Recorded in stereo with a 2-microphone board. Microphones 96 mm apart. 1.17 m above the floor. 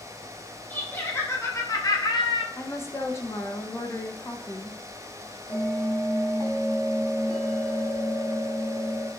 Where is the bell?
50° left (ahead or behind), 3 m.